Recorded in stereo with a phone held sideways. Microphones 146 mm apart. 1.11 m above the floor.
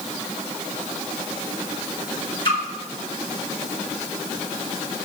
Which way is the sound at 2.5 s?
35° left (ahead or behind).